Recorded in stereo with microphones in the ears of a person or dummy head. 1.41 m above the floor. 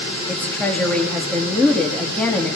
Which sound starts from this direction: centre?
A woman speaking, at 0.3 s.